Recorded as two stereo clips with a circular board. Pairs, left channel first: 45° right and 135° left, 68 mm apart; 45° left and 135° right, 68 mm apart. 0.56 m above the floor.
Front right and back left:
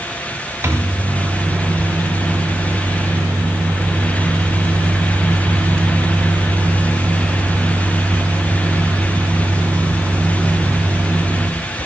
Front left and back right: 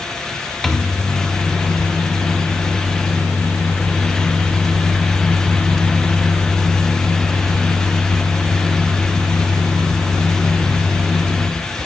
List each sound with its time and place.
0.6 s a microwave: 130° left, 0.6 m